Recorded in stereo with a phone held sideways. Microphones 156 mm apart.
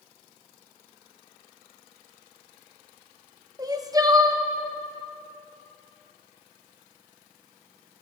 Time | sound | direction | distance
3.6 | crying | 25° right (ahead or behind) | 0.6 m